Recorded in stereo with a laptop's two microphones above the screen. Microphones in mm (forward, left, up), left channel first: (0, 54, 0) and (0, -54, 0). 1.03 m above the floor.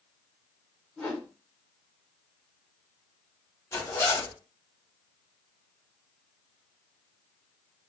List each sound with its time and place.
1.0 s a whoosh: 15° left (ahead or behind), 1.4 m
3.7 s a zipper: 25° left (ahead or behind), 1.2 m